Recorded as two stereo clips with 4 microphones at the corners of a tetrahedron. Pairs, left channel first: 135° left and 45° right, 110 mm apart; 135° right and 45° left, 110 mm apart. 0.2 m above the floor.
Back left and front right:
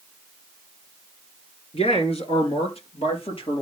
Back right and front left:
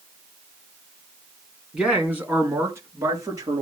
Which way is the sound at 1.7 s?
125° left.